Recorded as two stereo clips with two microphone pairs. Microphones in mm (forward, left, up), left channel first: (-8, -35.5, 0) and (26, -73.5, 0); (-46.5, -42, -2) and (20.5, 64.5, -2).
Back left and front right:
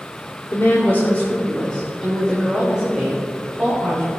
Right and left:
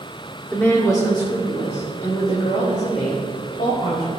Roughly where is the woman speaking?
Behind.